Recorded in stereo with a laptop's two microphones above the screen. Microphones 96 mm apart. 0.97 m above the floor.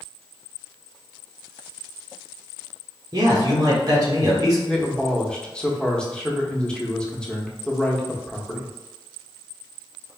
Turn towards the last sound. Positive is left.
turn(degrees=10)  # may be behind; listen again after turning